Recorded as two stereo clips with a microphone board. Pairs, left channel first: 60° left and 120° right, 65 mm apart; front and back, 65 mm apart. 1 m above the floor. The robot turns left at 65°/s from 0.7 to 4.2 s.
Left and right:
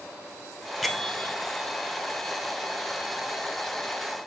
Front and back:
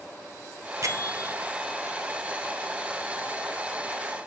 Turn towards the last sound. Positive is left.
turn(degrees=-70)